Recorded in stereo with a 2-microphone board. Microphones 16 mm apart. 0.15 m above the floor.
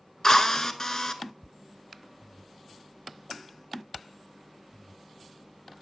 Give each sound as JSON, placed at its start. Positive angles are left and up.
{"t": 0.2, "sound": "a drill", "side_deg": 30, "distance_m": 0.7}